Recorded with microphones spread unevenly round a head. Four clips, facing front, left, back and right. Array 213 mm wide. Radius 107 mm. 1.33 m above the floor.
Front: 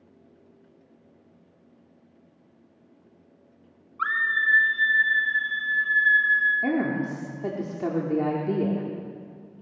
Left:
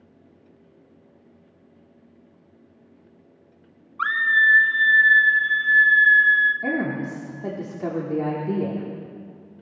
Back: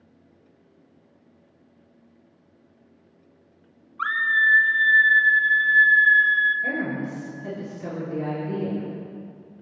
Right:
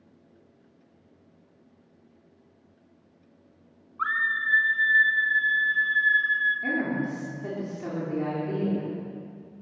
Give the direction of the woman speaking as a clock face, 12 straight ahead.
11 o'clock.